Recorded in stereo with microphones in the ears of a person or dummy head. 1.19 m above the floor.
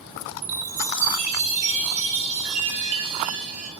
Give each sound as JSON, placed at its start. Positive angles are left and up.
{"t": 0.4, "sound": "a chime", "side_deg": -35, "distance_m": 1.2}